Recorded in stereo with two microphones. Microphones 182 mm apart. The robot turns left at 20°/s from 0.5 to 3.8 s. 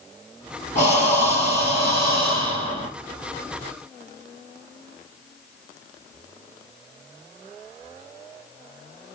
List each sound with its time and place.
0.8 s breathing: 80° left, 1.8 m; by 2.9 s 35° left, 1.8 m